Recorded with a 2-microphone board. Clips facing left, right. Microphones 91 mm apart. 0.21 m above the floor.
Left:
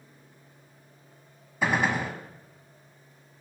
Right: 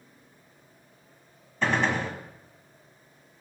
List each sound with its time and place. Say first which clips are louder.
1.6 s a gunshot: even; 10° left (ahead or behind), 0.8 m